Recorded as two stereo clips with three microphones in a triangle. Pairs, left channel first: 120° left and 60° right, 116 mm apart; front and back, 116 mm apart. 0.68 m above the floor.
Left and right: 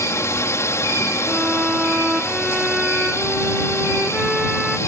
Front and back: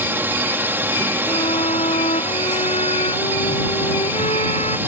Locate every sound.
0.0 s a drone: 135° left
1.3 s a violin: 25° left